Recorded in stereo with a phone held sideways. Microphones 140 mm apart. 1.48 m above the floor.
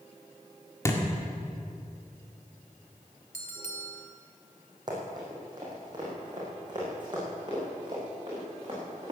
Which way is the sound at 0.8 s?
20° left (ahead or behind).